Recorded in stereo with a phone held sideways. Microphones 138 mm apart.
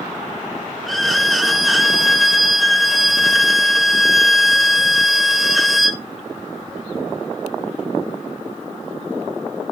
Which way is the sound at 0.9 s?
Centre (ahead or behind).